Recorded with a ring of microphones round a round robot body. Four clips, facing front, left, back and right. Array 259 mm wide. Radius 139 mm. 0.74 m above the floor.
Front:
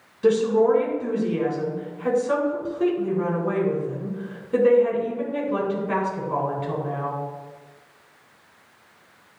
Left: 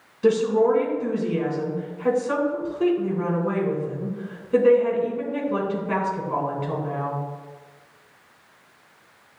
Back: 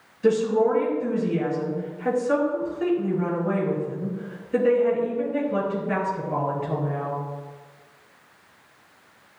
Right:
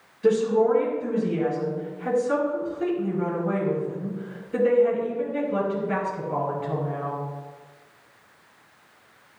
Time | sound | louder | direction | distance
0.2 | a woman speaking | left 1 dB, front 2 dB | 55° left | 3 m